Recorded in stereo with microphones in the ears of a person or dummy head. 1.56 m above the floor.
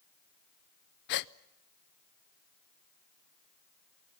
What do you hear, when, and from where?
1.1 s a gasp: 55° left (ahead or behind), 0.6 m